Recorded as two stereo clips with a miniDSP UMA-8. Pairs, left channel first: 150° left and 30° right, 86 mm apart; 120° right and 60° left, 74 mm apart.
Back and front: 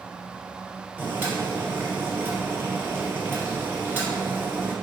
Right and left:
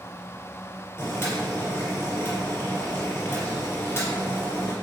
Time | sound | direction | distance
1.0 | boiling | 85° right | 1.6 m